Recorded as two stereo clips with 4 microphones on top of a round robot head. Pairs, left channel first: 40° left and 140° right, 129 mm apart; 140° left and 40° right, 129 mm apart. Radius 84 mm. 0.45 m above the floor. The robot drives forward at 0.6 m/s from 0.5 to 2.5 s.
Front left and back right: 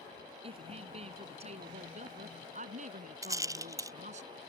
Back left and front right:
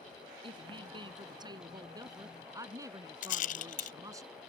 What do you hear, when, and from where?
0.4 s a woman speaking: 95° right; by 4.2 s 105° right
3.2 s a rattle: 155° left